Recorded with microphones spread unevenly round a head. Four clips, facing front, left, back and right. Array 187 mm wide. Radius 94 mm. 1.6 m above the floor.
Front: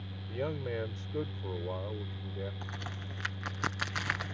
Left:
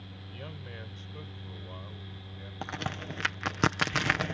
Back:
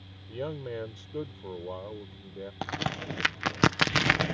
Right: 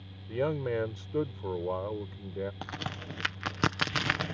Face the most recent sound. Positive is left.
turn(degrees=175)